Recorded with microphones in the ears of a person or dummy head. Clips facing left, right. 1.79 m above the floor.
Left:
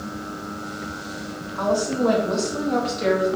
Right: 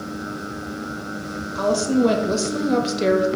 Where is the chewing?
No chewing in this recording.